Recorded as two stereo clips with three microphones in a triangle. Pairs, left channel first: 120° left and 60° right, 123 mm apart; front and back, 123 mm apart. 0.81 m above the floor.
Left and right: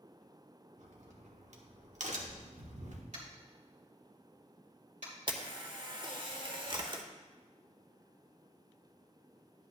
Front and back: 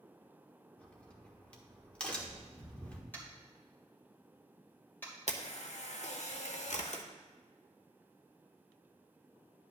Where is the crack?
80° right, 1.2 m.